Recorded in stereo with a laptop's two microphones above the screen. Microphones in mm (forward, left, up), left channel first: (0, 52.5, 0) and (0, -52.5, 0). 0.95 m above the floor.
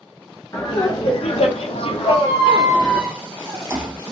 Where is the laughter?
35° left (ahead or behind), 0.6 m; by 3.0 s 40° left (ahead or behind), 1.1 m.